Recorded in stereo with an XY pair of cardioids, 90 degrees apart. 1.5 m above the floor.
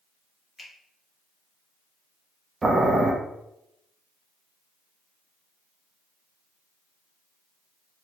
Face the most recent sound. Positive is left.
turn(degrees=-35)